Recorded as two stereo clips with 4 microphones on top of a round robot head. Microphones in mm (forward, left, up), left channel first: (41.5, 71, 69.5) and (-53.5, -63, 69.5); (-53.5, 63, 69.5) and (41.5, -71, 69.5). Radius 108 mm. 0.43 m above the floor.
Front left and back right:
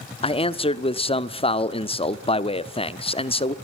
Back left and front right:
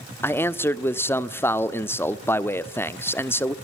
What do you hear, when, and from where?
0.2 s a man speaking: 60° left, 1.0 m